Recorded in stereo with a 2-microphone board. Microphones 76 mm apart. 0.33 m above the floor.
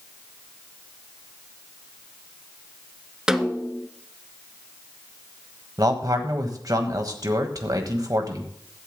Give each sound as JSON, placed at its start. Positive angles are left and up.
{"t": 3.3, "sound": "a snare drum", "side_deg": -5, "distance_m": 0.7}
{"t": 5.8, "sound": "a man speaking", "side_deg": -55, "distance_m": 1.5}